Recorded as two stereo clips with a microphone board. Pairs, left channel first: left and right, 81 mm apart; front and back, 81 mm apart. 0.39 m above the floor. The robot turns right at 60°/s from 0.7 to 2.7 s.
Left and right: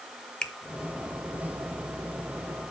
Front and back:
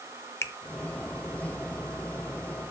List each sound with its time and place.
0.4 s a finger snap: 20° left, 0.6 m